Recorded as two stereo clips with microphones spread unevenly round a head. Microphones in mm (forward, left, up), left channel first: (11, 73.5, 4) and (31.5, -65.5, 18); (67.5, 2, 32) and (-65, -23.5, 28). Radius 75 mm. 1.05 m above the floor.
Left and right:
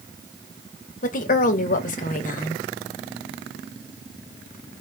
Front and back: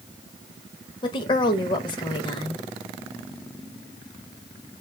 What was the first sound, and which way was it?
A woman speaking, 70° left.